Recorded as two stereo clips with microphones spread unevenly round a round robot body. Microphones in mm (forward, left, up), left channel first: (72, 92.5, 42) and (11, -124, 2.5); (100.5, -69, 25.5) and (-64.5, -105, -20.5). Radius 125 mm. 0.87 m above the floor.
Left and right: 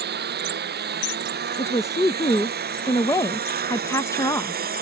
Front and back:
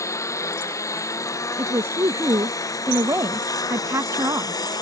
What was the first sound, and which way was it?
A lawn mower, 60° right.